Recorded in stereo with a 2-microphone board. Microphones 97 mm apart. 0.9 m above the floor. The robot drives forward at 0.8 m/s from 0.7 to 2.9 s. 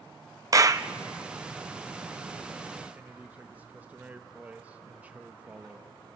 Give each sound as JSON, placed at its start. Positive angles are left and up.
{"t": 0.5, "sound": "a clap", "side_deg": -35, "distance_m": 0.5}
{"t": 3.0, "sound": "a man speaking", "side_deg": -15, "distance_m": 0.8}